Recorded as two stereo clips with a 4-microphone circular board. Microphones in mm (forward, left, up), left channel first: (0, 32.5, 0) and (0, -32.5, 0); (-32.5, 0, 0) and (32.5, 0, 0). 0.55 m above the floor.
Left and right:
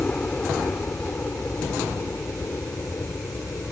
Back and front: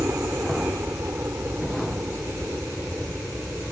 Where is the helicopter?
30° left; by 3.7 s 60° left.